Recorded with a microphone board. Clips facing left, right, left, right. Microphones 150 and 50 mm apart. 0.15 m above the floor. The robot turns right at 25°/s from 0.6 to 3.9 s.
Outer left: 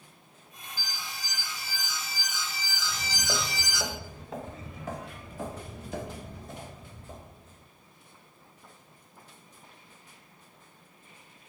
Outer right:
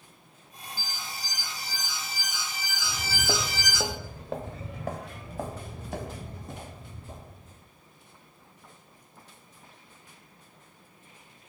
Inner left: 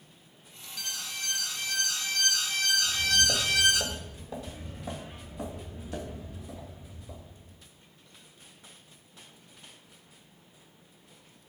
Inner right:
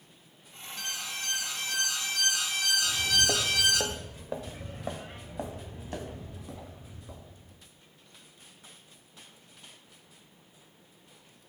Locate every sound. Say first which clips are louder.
0.8 s an alarm: outer right 1 dB, inner right 1 dB; 25° right (ahead or behind), 1.1 m; by 3.8 s centre (ahead or behind), 1.1 m
2.8 s footsteps: outer right 3 dB, even; 80° right, 1.1 m; by 7.7 s 65° right (ahead or behind), 3.5 m